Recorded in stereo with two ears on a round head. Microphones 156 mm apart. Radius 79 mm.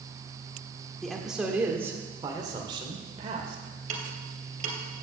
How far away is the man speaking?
About 1.4 m.